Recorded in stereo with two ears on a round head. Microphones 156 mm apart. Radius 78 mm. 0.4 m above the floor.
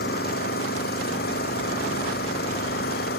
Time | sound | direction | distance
0.0 | an engine running | 65° left (ahead or behind) | ?